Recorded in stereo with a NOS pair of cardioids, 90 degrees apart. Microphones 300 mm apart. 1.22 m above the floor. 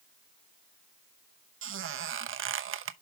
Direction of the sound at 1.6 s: 45° right.